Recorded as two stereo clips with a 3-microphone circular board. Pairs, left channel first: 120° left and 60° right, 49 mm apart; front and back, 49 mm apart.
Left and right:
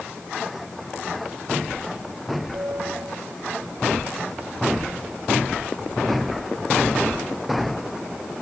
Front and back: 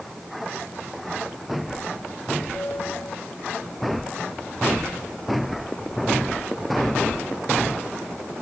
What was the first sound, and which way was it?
A piano, 35° right.